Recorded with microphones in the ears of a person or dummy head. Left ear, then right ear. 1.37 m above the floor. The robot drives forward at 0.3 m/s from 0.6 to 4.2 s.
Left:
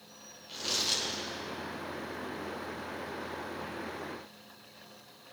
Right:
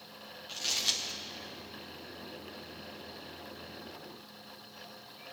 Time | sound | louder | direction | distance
0.5 | crumpling | even | 40° right (ahead or behind) | 1.7 m